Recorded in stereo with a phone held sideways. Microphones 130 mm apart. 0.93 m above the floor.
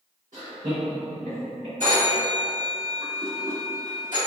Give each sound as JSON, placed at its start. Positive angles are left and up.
{"t": 0.3, "sound": "laughter", "side_deg": -75, "distance_m": 1.7}
{"t": 1.8, "sound": "a phone ringing", "side_deg": -85, "distance_m": 1.7}